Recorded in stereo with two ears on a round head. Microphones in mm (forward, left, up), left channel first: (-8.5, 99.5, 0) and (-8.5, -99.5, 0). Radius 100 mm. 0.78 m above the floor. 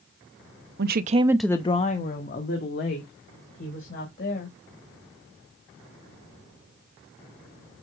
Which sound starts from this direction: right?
A woman speaking, at 0.8 s.